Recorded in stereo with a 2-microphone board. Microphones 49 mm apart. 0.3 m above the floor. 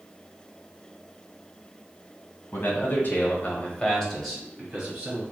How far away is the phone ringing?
I don't hear a phone ringing.